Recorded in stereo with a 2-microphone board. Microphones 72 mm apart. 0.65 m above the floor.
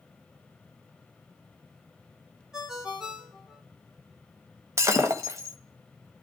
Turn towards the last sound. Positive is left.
turn(degrees=-45)  # may be behind; listen again after turning